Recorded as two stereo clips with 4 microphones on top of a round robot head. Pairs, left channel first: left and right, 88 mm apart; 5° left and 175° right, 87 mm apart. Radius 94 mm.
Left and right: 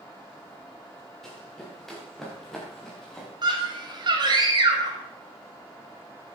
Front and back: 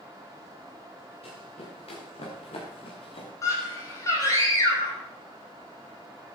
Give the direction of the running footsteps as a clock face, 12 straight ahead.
12 o'clock.